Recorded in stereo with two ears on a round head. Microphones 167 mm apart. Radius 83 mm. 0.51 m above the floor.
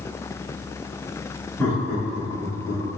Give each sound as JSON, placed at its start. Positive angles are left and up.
{"t": 1.6, "sound": "laughter", "side_deg": 10, "distance_m": 0.9}